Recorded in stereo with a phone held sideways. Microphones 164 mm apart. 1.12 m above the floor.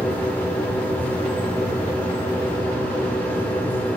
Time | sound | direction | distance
0.0 | a machine running | 10° left (ahead or behind) | 1.8 m